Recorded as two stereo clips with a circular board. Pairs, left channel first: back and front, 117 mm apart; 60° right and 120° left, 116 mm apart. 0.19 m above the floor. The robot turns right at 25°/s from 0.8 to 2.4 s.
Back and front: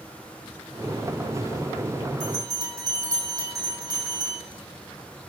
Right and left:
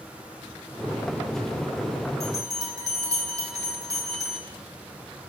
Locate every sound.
2.2 s a bell: 55° left, 4.5 m; by 4.4 s 60° left, 4.5 m